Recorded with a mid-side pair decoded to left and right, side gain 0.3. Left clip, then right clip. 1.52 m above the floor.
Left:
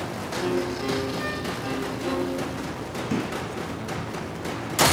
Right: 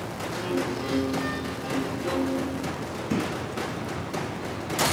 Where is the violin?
50° left, 0.7 m.